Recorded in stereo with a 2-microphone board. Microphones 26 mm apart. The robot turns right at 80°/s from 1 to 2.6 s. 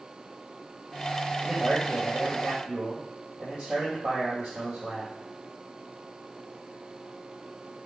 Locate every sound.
1.4 s a man speaking: 170° right, 3.5 m; by 5.1 s 75° right, 3.5 m